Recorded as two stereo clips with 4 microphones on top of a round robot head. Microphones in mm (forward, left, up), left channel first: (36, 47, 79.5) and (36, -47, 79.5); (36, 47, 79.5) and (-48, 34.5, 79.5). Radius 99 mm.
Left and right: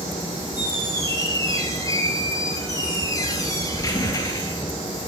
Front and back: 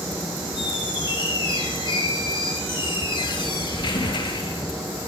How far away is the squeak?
About 6.5 m.